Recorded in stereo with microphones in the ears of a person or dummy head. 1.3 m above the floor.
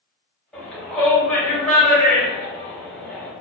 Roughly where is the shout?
Centre.